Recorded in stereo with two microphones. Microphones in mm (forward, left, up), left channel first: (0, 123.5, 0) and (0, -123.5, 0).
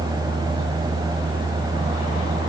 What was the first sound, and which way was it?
Only background noise.